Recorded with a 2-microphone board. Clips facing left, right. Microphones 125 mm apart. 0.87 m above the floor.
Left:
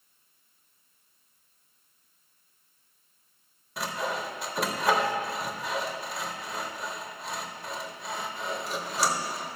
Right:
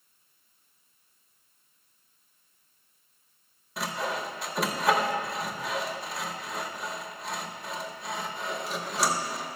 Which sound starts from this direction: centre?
Sawing, at 3.8 s.